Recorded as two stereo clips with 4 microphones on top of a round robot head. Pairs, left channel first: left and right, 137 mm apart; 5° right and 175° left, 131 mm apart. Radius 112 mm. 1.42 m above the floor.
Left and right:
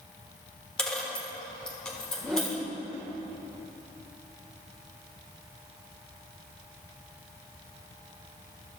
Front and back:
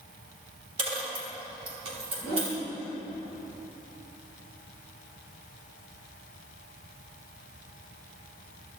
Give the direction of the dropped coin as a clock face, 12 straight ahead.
6 o'clock.